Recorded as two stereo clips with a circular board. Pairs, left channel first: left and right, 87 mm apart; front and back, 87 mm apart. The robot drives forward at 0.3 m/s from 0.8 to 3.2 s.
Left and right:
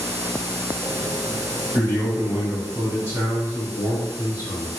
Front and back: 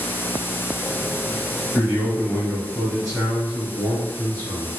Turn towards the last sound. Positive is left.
turn(degrees=-150)